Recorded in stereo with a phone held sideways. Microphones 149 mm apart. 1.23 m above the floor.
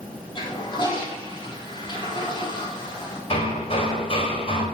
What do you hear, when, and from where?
0.3 s a toilet flushing: 35° left (ahead or behind), 3 m
3.3 s hammering: 40° left (ahead or behind), 3 m